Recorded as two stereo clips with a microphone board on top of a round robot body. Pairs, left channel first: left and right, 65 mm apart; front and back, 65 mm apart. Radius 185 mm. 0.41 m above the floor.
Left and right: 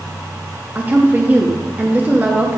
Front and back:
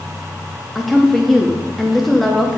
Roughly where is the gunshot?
I don't hear a gunshot.